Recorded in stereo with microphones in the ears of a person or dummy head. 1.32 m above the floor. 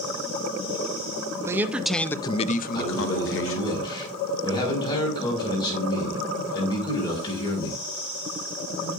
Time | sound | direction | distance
1.4 | a man speaking | 20° right (ahead or behind) | 0.8 m
2.7 | a man speaking | 20° left (ahead or behind) | 5.5 m